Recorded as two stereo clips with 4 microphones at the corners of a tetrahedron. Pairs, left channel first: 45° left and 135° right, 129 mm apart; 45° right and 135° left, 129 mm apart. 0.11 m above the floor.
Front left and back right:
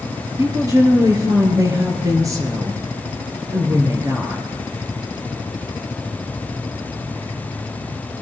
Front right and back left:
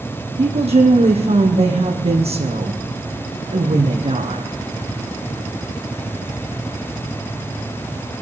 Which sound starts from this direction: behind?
A woman speaking, at 0.4 s.